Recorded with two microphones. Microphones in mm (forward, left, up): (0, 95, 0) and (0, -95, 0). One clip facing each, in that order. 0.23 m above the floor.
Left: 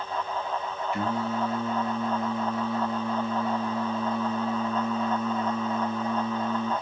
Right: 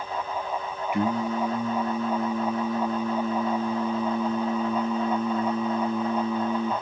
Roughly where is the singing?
Centre.